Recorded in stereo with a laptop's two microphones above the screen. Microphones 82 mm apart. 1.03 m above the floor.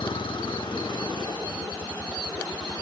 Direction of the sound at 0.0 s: 75° left (ahead or behind).